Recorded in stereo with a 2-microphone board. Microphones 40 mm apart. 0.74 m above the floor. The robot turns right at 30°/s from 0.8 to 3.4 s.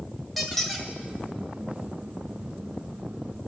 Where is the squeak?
5° right (ahead or behind), 1.3 m; by 0.9 s centre (ahead or behind), 1.3 m.